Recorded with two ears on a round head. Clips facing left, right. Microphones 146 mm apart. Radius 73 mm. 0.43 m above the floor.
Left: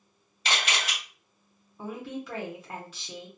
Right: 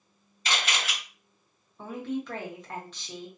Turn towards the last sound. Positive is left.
turn(degrees=5)  # may be behind; listen again after turning